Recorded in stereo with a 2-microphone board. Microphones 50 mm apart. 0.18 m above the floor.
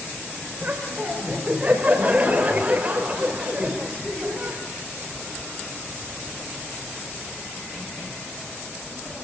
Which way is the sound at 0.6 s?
30° right (ahead or behind).